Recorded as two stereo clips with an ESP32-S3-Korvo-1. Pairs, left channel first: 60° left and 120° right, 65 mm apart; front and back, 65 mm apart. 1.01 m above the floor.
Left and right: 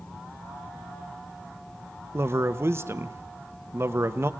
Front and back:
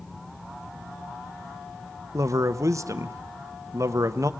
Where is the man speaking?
160° right, 1.0 m.